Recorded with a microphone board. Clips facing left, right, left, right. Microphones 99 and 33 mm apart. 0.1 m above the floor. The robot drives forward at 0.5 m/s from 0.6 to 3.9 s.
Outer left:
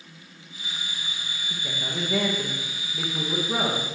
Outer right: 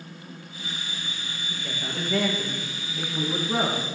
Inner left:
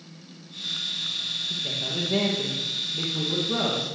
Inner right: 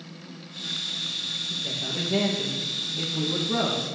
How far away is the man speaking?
About 2.5 m.